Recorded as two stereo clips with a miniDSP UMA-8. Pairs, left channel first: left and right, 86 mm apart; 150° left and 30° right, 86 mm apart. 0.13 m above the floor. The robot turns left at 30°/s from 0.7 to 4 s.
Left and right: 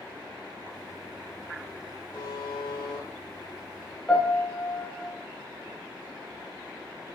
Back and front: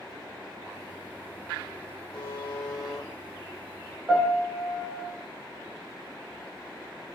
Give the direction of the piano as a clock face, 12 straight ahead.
11 o'clock.